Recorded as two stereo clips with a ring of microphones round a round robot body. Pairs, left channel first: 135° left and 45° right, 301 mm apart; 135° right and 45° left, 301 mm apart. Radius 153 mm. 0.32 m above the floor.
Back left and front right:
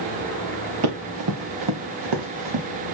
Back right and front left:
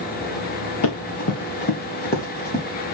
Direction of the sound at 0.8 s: 90° right.